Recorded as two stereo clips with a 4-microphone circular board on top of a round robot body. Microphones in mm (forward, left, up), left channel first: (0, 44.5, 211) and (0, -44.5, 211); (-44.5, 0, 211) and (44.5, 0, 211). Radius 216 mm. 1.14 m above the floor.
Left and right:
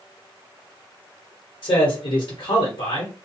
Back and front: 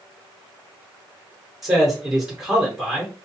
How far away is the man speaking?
About 1.2 m.